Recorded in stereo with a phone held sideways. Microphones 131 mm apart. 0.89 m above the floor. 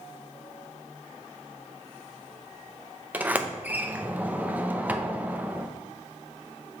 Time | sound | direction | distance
3.1 | a sliding door | 10° right (ahead or behind) | 0.5 m